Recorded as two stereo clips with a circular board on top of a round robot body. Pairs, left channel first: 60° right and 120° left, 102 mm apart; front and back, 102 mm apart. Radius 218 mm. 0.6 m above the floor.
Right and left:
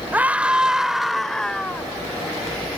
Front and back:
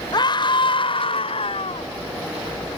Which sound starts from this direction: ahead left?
A scream, at 0.1 s.